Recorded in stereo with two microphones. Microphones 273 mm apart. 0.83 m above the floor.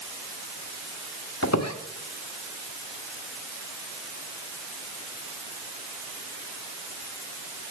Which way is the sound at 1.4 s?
70° left (ahead or behind).